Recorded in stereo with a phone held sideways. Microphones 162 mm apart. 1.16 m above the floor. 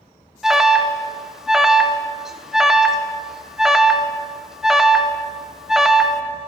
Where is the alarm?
5° right (ahead or behind), 0.8 m.